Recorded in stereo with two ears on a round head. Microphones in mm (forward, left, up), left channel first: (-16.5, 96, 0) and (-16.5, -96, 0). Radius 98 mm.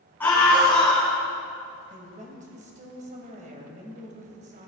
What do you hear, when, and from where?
0.2 s a scream: 10° left (ahead or behind), 5.5 m
1.9 s a woman speaking: 40° right (ahead or behind), 3.5 m